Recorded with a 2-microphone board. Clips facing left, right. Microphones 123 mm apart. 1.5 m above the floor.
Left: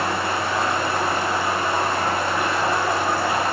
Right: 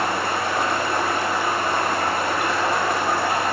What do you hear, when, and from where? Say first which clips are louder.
0.0 s running water: even; 65° right (ahead or behind), 4 m